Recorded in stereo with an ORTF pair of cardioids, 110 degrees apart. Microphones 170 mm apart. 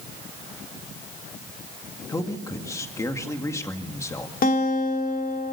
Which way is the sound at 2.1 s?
20° left.